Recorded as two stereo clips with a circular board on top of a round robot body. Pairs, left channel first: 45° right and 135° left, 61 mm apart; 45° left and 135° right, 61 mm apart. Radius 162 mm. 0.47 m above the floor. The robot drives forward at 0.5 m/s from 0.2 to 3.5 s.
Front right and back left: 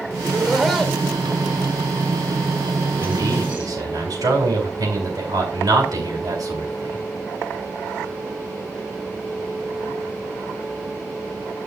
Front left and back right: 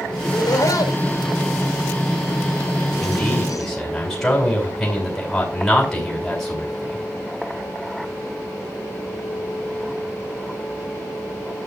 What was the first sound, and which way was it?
Laughter, 45° left.